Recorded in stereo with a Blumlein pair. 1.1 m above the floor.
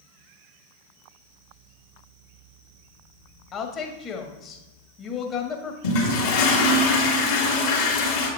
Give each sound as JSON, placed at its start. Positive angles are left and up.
{"t": 3.5, "sound": "a woman speaking", "azimuth_deg": 25, "distance_m": 1.5}
{"t": 5.8, "sound": "a toilet flushing", "azimuth_deg": 55, "distance_m": 3.0}